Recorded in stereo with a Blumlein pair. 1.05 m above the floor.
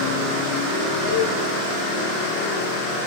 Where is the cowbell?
45° left, 3 m.